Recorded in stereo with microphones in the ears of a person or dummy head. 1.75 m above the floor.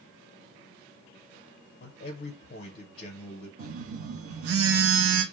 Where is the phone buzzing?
70° right (ahead or behind), 0.5 m.